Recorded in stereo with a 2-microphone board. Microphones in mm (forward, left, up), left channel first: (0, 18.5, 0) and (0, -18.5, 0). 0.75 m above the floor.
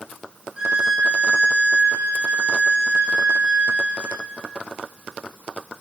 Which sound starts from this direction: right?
A violin, at 0.6 s.